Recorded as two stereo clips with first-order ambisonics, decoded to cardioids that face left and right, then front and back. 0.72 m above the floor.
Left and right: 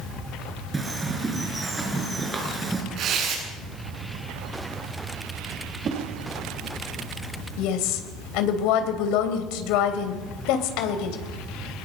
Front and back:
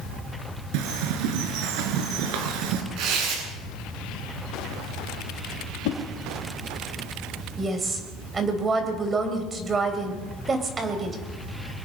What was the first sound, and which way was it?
A bird, 170° right.